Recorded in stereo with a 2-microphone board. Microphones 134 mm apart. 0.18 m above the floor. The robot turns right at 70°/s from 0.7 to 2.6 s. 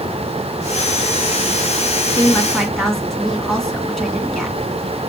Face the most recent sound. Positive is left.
turn(degrees=180)